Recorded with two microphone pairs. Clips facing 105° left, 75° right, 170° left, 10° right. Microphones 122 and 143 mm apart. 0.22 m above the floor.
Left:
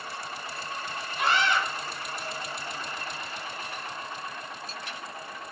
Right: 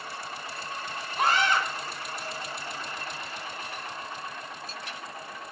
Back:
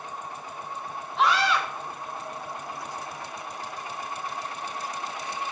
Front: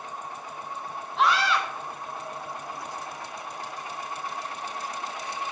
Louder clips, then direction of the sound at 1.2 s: Right 1 dB, even; 100° right.